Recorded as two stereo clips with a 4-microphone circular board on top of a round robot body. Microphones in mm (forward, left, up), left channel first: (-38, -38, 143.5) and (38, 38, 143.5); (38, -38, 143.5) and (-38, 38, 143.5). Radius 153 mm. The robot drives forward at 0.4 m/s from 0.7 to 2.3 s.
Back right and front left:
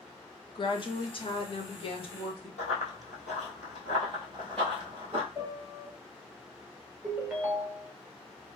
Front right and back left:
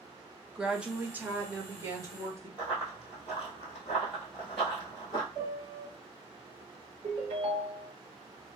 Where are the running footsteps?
145° right, 1.5 m; by 5.2 s 20° left, 0.8 m.